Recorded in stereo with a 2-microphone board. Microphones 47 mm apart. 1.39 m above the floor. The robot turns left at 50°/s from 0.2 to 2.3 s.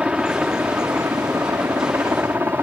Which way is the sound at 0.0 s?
25° right.